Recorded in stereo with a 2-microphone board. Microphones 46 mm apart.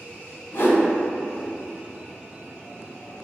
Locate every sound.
0.5 s a whoosh: 65° left (ahead or behind), 0.9 m